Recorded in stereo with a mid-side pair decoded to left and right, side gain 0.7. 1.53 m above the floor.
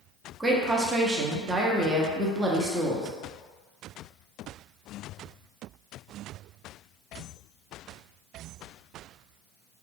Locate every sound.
0.4 s a woman speaking: 20° right, 0.7 m